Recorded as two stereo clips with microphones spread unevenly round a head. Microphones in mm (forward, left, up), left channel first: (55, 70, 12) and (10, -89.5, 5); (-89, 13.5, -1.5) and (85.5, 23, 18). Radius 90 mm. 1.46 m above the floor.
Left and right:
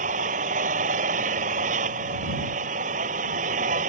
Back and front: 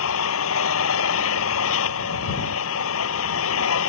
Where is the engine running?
160° right.